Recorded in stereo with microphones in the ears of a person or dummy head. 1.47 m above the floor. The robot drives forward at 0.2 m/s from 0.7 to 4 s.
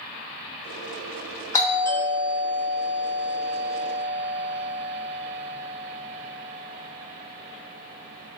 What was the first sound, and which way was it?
A doorbell, 10° left (ahead or behind).